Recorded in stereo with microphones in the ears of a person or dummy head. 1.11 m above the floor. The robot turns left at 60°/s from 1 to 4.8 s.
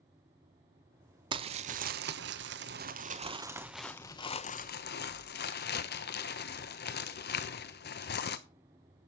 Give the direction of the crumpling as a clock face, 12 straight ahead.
1 o'clock.